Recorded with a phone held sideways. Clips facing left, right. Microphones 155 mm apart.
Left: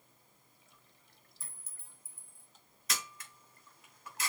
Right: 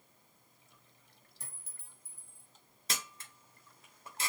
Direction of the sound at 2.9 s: 30° right (ahead or behind).